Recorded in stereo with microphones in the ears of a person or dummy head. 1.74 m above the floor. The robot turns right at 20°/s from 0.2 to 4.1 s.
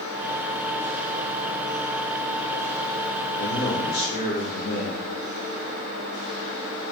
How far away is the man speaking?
About 0.7 m.